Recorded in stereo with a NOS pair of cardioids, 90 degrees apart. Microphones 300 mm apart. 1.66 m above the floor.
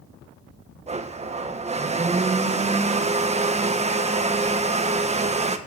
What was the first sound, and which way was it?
A blender, 20° right.